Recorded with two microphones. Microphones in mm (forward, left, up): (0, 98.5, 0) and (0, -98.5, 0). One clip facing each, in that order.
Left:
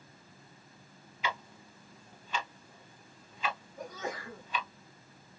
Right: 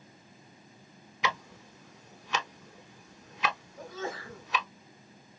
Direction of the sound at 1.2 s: 75° right (ahead or behind).